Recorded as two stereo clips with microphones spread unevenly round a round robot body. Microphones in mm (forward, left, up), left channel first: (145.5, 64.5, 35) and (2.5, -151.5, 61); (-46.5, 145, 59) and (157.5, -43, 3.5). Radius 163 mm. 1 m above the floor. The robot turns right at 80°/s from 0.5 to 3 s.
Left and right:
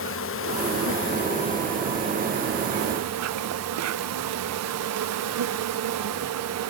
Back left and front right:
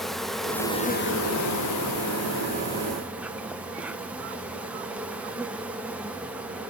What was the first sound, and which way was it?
An insect, 40° left.